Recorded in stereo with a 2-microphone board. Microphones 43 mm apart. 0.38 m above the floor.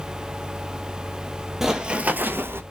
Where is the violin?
I don't hear a violin.